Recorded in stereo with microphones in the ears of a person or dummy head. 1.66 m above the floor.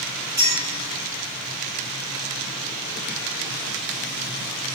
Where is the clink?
15° right (ahead or behind), 4 m.